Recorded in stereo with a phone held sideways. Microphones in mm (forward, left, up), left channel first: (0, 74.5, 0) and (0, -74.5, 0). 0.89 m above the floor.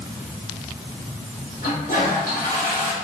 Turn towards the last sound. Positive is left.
turn(degrees=75)  # may be behind; listen again after turning